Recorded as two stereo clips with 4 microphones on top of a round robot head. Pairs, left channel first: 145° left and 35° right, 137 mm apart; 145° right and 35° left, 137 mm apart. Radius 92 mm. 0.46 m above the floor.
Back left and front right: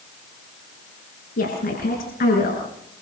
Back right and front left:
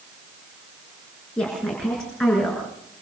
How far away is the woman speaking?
About 7.5 m.